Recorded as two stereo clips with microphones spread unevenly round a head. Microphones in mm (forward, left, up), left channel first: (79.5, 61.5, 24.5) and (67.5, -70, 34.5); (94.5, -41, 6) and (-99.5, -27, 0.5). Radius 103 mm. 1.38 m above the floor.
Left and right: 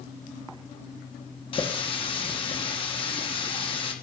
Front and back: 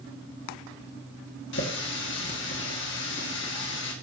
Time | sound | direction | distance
1.5 | a running tap | 35° left | 1.9 m